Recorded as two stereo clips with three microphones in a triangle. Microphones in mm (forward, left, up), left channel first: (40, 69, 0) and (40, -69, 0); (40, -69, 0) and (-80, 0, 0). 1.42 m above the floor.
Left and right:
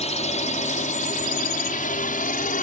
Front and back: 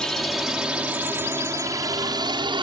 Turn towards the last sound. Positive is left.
turn(degrees=100)